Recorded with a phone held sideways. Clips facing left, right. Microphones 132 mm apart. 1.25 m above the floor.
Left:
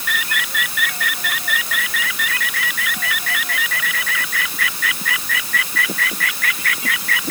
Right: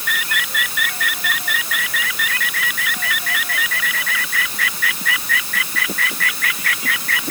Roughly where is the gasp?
No gasp in this recording.